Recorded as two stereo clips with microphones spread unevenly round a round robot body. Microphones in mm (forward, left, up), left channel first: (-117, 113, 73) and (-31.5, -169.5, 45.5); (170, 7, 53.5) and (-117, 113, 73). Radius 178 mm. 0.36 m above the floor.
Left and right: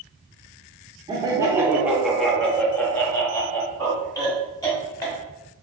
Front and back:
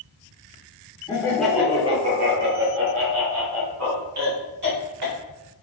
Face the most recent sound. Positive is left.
turn(degrees=-175)